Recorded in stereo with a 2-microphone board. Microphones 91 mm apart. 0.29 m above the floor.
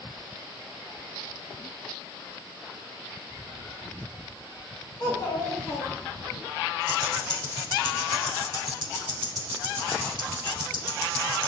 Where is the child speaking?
45° left (ahead or behind), 3 m; by 6.4 s 10° left (ahead or behind), 2 m.